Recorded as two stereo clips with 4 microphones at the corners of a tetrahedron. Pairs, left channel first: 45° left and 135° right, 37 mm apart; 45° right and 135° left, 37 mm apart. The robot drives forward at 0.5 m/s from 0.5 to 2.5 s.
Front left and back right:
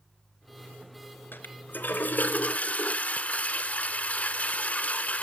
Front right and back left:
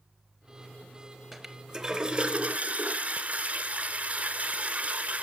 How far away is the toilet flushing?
About 0.9 m.